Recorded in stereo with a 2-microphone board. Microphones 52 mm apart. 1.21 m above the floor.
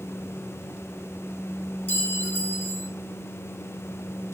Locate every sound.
1.9 s a clink: 40° left (ahead or behind), 4.5 m